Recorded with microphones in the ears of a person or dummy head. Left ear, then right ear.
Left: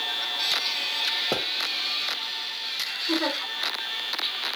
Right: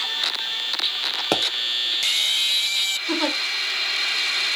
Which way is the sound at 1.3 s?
55° right (ahead or behind).